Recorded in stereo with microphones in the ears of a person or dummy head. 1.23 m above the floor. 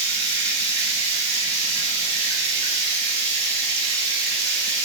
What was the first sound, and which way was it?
Running water, 55° right (ahead or behind).